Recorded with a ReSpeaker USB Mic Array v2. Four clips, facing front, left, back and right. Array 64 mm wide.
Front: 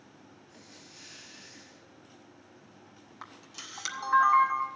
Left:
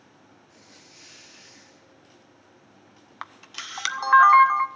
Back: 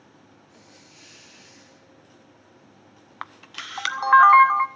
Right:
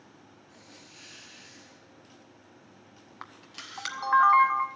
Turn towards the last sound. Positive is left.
turn(degrees=160)